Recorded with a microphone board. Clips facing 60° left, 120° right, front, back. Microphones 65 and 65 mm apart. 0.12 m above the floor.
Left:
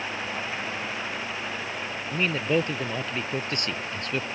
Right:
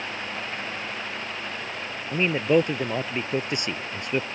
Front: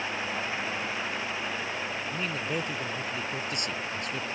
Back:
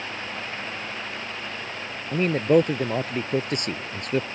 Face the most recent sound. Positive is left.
turn(degrees=175)